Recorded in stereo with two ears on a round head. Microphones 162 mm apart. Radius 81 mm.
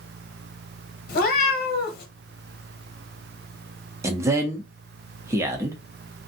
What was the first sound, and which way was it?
A cat meowing, 55° left (ahead or behind).